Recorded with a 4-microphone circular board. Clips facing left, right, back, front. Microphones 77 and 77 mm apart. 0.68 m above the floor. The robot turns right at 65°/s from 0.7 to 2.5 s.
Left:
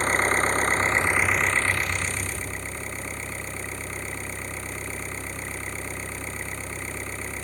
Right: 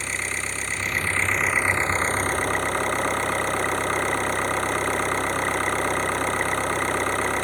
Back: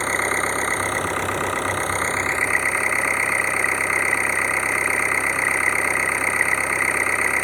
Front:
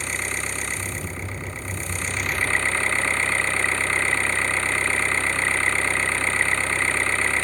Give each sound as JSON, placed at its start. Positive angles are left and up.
{"t": 0.0, "sound": "an engine running", "azimuth_deg": 135}